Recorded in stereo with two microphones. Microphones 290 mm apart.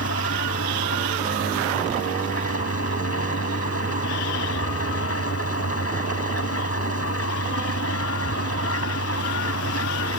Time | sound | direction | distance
0.0 | an engine running | 55° left (ahead or behind) | ?